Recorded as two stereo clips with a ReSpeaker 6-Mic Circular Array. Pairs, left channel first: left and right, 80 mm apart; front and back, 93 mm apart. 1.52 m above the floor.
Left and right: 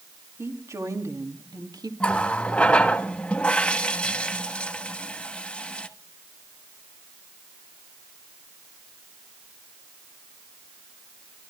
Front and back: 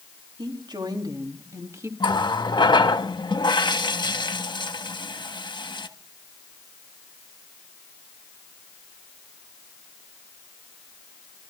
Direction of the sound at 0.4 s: 145° right.